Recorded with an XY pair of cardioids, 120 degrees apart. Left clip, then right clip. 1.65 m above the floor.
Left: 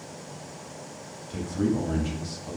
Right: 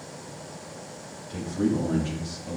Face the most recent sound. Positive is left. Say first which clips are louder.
# right 1 dB
turn(degrees=15)